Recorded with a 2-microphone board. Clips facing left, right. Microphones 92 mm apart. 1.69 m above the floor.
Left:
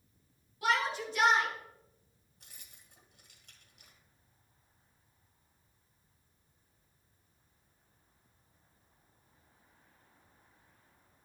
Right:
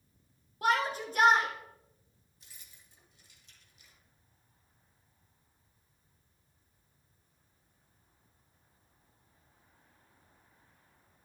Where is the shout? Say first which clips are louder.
Right 2 dB; 45° right (ahead or behind), 2 m.